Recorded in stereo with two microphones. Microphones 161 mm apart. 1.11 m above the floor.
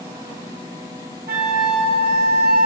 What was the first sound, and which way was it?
A flute, 75° right (ahead or behind).